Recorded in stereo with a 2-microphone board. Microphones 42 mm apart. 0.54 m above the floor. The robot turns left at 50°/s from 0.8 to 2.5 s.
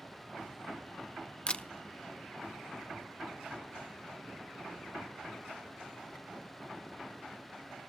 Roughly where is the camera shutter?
Left.